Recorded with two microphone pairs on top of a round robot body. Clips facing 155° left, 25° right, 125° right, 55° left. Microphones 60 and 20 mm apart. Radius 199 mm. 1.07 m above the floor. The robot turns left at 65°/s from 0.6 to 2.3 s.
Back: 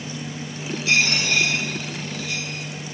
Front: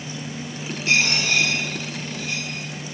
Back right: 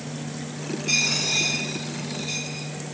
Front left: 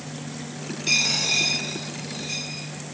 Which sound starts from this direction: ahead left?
A dropped coin, at 0.9 s.